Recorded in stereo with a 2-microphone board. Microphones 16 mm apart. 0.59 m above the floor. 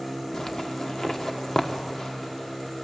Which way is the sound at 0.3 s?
40° left (ahead or behind).